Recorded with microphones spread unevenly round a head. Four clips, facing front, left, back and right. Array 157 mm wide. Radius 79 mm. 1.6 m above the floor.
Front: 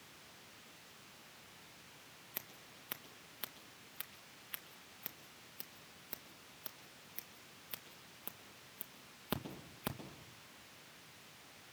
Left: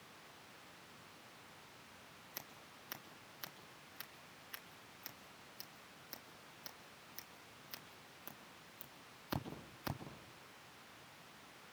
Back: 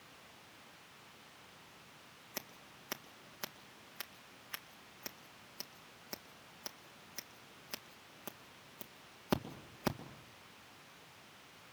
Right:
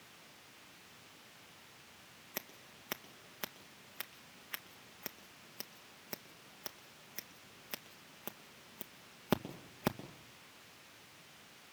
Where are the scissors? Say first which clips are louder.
Right 8 dB, back 6 dB; 105° right, 2 m.